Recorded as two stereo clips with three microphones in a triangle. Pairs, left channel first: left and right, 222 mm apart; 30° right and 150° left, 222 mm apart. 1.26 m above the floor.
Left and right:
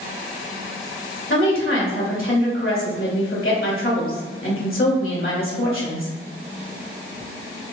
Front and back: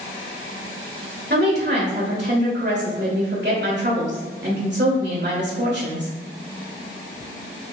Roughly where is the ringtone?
No ringtone in this recording.